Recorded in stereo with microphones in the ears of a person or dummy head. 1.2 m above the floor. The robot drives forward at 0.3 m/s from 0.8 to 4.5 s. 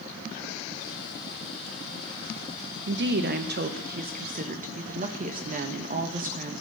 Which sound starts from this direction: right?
A woman speaking, at 2.9 s.